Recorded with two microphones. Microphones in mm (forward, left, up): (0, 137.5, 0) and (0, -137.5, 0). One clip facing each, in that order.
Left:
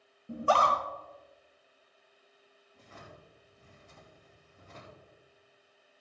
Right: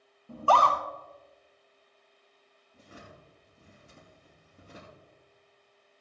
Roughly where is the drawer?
Right.